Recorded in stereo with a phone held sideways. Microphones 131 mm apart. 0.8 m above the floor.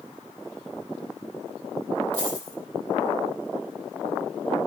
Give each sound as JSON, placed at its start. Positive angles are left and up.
{"t": 2.1, "sound": "a dropped coin", "side_deg": 50, "distance_m": 5.0}